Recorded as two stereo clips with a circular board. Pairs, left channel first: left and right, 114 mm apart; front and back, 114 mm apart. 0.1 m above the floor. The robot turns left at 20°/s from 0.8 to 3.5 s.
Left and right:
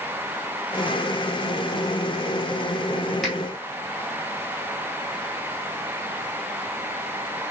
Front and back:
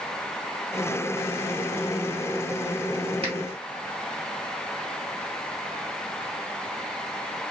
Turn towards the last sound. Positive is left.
turn(degrees=175)